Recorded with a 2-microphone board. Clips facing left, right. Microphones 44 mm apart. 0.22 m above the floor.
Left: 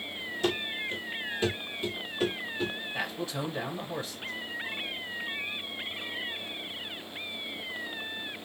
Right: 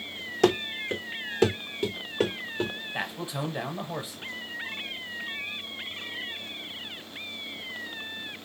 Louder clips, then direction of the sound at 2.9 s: Right 2 dB; 20° right (ahead or behind).